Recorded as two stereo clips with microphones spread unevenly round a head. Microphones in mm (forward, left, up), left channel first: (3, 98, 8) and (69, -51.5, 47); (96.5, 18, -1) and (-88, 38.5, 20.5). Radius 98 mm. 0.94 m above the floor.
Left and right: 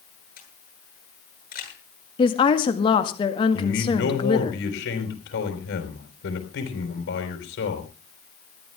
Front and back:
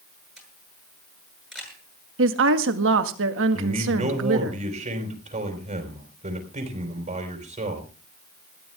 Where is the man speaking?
115° left, 5 m.